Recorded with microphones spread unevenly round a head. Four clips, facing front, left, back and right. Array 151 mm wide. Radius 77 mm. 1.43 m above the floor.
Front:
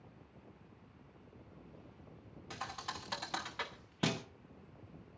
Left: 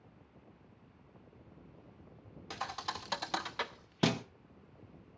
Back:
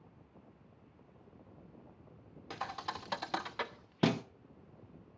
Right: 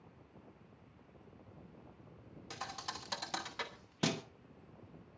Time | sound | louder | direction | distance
2.5 | a thud | left 5 dB, back 4 dB | 150° left | 0.9 m